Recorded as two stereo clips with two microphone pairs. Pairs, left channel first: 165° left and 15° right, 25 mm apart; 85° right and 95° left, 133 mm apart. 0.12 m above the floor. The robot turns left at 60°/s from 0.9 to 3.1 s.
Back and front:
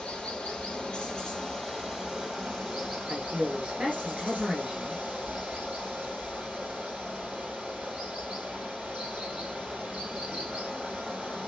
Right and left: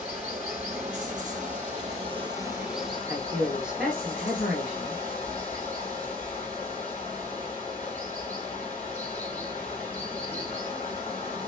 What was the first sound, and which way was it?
Running water, 120° left.